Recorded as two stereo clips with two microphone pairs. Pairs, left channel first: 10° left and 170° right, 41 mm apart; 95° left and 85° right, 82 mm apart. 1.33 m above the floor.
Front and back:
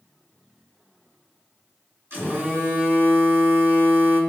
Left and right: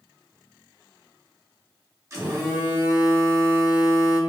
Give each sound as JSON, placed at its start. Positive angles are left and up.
{"t": 2.1, "sound": "a phone buzzing", "azimuth_deg": -135, "distance_m": 1.9}